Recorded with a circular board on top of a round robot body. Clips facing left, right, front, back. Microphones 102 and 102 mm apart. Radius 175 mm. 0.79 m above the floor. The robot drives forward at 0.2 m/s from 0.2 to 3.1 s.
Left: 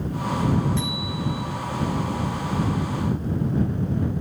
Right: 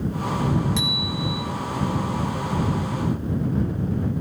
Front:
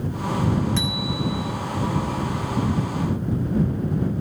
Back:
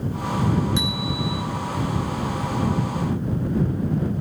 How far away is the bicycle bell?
About 3 m.